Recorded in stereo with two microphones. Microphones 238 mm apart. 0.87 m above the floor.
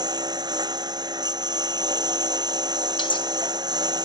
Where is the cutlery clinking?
20° left (ahead or behind).